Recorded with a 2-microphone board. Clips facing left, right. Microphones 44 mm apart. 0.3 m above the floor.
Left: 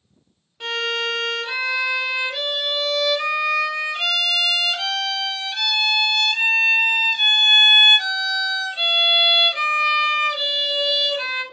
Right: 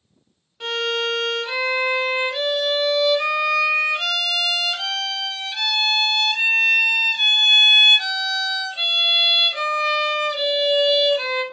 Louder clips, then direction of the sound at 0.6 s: Right 1 dB; centre (ahead or behind).